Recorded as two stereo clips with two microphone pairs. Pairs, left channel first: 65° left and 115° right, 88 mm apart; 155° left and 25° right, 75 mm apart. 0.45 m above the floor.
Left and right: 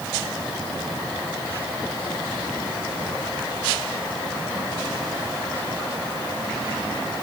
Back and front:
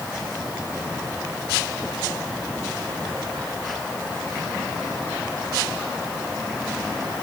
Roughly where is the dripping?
No dripping in this recording.